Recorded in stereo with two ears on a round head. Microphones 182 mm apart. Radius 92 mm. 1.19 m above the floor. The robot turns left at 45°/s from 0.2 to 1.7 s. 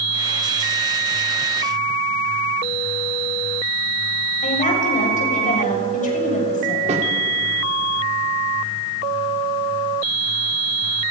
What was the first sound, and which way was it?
A woman speaking, 40° left (ahead or behind).